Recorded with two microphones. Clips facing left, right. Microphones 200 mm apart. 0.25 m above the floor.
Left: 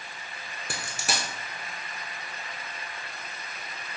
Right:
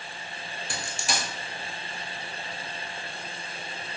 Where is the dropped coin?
65° left (ahead or behind), 1.1 m.